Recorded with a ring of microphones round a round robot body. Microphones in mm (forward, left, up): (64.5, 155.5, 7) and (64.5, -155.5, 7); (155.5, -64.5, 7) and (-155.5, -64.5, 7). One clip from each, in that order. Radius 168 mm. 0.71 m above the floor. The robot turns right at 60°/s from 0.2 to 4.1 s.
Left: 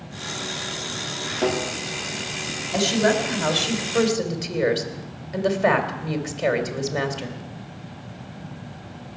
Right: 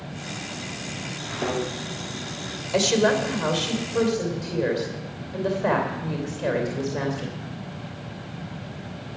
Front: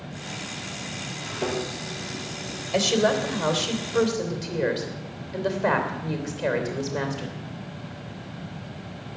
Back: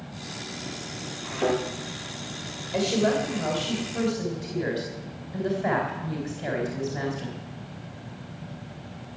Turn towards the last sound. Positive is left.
turn(degrees=55)